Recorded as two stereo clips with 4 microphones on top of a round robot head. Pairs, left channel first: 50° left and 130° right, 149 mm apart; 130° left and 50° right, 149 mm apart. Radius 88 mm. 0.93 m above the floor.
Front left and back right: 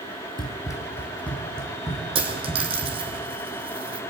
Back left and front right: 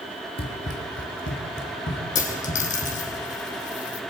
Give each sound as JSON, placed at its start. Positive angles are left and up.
{"t": 0.4, "sound": "running footsteps", "azimuth_deg": 110, "distance_m": 1.6}
{"t": 2.1, "sound": "a dropped coin", "azimuth_deg": 170, "distance_m": 3.5}